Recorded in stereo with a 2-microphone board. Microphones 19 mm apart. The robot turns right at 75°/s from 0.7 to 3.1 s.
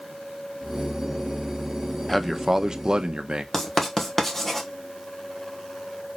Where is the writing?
15° left (ahead or behind), 1.2 m.